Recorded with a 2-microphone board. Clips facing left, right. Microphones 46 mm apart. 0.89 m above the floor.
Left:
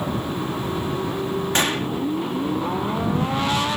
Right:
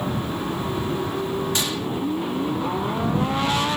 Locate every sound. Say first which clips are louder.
1.6 s a gunshot: left 4 dB; 45° left (ahead or behind)